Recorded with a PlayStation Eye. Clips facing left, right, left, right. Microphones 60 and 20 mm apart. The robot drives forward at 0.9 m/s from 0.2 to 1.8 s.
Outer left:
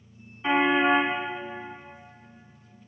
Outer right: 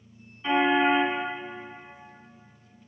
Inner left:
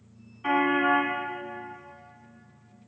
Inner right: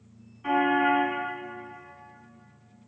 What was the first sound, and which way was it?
A car horn, 25° left (ahead or behind).